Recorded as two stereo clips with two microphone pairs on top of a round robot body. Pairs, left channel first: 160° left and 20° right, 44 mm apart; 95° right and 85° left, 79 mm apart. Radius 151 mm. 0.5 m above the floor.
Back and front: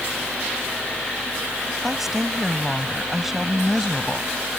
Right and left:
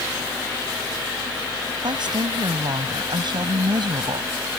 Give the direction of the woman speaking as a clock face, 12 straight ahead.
10 o'clock.